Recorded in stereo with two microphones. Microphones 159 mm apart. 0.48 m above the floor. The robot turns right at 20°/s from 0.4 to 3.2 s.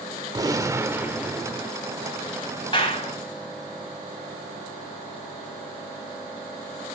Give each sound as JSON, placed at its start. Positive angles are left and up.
{"t": 0.3, "sound": "a gunshot", "side_deg": -25, "distance_m": 0.8}
{"t": 2.7, "sound": "a clap", "side_deg": 30, "distance_m": 3.0}